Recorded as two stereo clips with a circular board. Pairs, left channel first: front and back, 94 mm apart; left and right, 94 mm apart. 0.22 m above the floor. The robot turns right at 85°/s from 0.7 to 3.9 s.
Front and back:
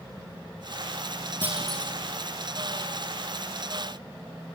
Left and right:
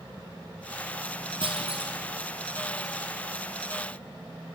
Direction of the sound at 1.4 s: 110° right.